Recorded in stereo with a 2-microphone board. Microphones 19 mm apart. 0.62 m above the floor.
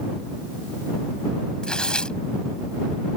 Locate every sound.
1.6 s tearing paper: 50° left (ahead or behind)